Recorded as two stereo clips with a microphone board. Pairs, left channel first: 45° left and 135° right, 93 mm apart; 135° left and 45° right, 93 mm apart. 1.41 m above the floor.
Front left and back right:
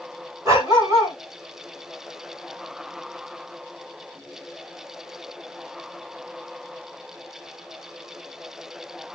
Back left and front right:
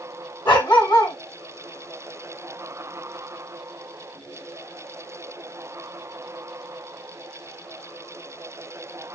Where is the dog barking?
170° left, 2.5 m.